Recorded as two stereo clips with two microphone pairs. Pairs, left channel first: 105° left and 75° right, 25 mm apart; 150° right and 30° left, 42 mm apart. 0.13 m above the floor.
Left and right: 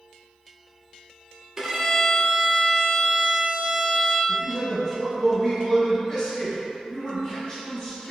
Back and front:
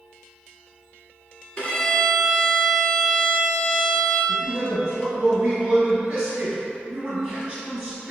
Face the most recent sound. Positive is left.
turn(degrees=70)